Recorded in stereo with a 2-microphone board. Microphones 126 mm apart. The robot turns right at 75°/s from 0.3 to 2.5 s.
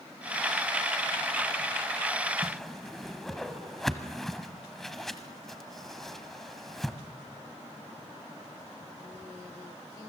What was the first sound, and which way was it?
A whoosh, 5° right (ahead or behind).